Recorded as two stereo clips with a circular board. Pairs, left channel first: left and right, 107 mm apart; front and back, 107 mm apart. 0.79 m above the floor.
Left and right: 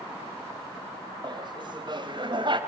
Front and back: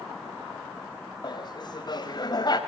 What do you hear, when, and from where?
1.2 s laughter: 45° right, 4.5 m; by 2.6 s 50° right, 5.5 m